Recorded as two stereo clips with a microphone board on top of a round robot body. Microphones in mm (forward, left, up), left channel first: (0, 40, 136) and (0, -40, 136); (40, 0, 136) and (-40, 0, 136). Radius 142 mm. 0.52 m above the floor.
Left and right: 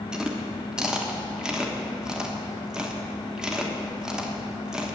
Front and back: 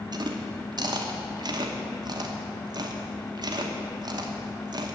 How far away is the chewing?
About 1.2 m.